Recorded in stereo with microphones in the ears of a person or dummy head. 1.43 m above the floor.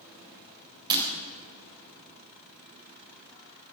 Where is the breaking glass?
25° right (ahead or behind), 4 m.